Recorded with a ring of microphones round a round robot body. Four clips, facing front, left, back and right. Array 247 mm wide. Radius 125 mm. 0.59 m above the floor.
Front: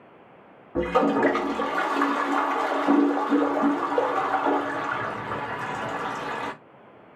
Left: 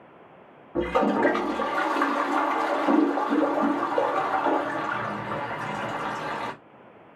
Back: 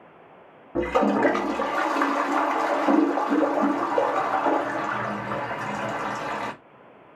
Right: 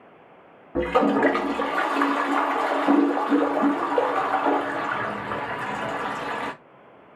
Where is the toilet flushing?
120° right, 0.9 m.